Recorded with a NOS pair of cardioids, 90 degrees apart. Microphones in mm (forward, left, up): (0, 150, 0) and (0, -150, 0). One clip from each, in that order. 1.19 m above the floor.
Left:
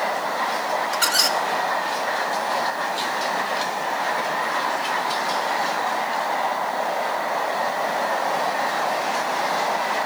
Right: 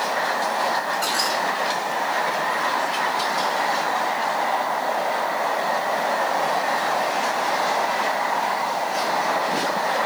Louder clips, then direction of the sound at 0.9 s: Left 2 dB; 55° left.